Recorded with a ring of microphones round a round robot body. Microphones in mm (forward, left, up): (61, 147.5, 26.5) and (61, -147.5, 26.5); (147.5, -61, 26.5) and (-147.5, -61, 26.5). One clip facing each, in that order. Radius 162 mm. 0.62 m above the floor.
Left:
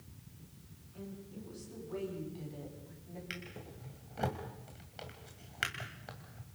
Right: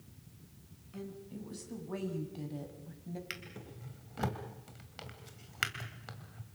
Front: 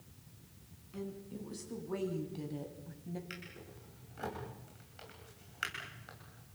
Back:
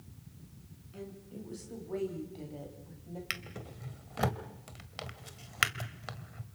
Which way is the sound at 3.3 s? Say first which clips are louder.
Left 1 dB, back 3 dB; 165° right.